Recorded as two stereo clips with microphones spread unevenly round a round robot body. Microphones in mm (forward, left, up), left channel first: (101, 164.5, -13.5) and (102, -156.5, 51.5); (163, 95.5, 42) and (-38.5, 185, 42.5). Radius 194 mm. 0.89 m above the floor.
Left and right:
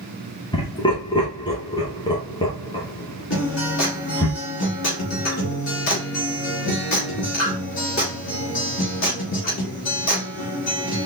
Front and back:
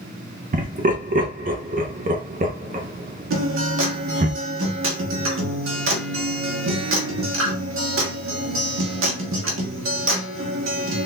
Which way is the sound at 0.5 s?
140° left.